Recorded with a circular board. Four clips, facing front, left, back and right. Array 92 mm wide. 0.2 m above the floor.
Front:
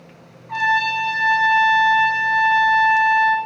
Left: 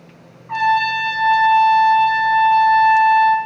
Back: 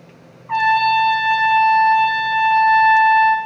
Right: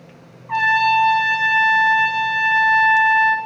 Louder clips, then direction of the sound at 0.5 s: Even, back 5 dB; 170° right.